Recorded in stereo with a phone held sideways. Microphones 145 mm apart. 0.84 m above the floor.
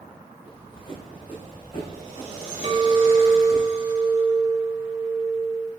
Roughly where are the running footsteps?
Left.